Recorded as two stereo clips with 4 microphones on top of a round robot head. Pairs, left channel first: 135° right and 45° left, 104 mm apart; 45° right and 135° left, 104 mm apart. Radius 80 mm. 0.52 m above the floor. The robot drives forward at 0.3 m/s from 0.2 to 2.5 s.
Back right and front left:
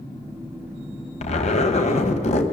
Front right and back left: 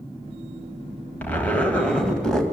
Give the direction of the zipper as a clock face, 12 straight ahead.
4 o'clock.